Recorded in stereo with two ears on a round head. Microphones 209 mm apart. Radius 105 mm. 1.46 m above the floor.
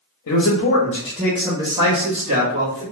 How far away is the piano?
No piano in this recording.